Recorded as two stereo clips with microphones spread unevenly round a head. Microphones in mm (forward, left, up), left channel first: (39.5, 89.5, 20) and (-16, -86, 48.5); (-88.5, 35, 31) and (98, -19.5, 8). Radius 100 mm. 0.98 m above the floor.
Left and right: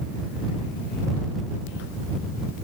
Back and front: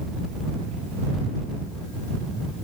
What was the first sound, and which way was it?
Only background noise.